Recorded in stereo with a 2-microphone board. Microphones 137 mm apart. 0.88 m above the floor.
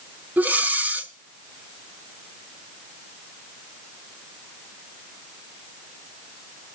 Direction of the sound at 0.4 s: 10° right (ahead or behind).